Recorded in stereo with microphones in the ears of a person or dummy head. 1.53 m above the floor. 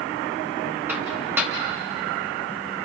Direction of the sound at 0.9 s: 15° right (ahead or behind).